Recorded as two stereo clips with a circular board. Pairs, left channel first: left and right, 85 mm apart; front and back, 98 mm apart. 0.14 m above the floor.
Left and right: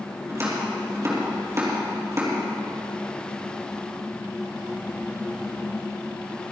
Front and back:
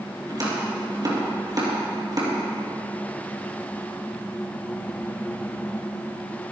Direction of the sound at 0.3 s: 140° right.